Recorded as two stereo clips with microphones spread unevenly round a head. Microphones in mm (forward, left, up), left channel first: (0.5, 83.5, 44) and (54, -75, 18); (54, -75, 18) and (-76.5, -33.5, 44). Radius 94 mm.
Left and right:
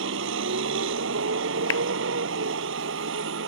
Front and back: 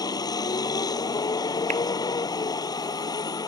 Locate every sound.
0.0 s a vehicle: 80° right
1.7 s a clap: 105° left